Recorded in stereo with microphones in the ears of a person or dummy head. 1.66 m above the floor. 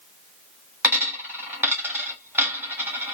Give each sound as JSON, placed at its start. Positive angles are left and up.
{"t": 0.8, "sound": "a dropped coin", "side_deg": -10, "distance_m": 1.4}